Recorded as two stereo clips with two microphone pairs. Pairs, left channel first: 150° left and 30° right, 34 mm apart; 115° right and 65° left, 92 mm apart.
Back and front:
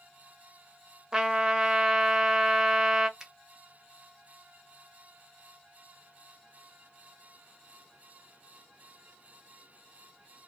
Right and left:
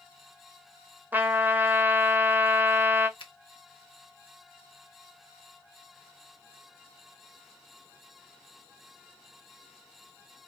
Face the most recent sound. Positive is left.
turn(degrees=-100)